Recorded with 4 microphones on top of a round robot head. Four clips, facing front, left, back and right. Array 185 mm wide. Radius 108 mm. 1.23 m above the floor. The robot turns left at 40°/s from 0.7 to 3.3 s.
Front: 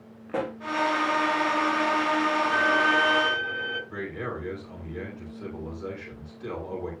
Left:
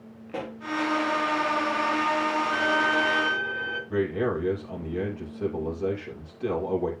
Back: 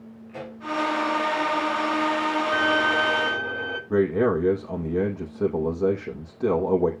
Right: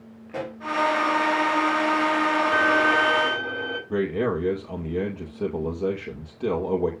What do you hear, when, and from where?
0.3 s a pop: 15° left, 1.8 m
2.5 s a violin: 110° right, 3 m; by 3.8 s 140° right, 3 m
3.9 s a man speaking: 155° right, 2 m